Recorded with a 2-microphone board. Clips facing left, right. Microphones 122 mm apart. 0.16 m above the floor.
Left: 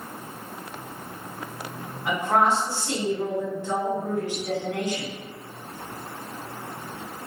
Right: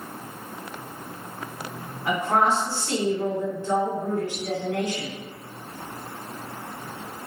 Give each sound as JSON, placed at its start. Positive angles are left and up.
{"t": 2.0, "sound": "a woman speaking", "side_deg": 15, "distance_m": 1.6}